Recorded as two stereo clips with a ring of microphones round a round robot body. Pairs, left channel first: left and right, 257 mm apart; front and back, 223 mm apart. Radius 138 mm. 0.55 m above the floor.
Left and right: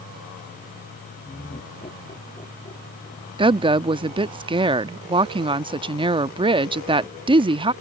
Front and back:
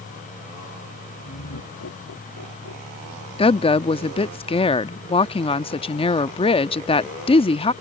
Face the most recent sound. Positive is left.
turn(degrees=-40)